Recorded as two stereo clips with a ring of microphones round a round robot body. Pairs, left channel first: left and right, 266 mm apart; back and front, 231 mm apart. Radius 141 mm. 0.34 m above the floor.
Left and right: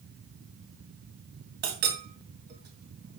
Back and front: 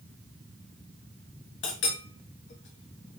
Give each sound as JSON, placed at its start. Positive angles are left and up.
{"t": 1.6, "sound": "a clink", "azimuth_deg": -140, "distance_m": 2.5}